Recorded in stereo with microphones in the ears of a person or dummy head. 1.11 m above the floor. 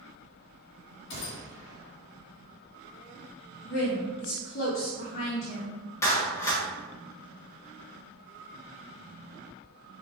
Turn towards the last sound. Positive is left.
turn(degrees=20)  # may be behind; listen again after turning